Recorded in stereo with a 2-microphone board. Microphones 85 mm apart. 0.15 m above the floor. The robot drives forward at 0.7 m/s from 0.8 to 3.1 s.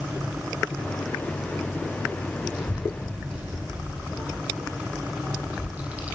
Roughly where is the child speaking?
Centre.